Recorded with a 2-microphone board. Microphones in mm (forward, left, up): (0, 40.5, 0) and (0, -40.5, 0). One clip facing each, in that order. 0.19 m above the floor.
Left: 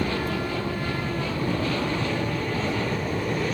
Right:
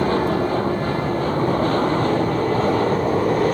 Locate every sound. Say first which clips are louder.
0.0 s an aircraft: right 8 dB; 40° right (ahead or behind); by 3.6 s 45° right (ahead or behind)